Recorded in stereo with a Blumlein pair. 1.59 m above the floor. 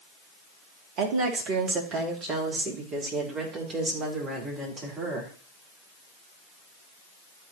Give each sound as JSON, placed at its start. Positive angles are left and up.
{"t": 1.0, "sound": "a woman speaking", "azimuth_deg": -40, "distance_m": 2.5}